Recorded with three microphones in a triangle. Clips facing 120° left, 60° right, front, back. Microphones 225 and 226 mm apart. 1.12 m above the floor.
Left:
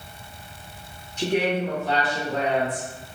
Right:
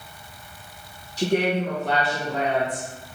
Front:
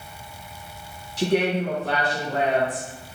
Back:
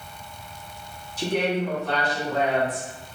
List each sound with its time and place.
1.2 s a woman speaking: 10° right, 0.6 m; by 2.9 s 45° right, 1.4 m